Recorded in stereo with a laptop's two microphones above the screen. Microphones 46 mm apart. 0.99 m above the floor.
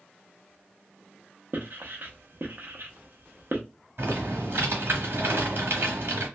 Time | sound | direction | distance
1.5 | writing | 45° right (ahead or behind) | 0.7 m
4.0 | typing on a keyboard | 55° right (ahead or behind) | 1.4 m